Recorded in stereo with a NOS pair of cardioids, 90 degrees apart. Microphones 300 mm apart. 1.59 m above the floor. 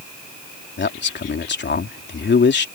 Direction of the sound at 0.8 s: 40° left.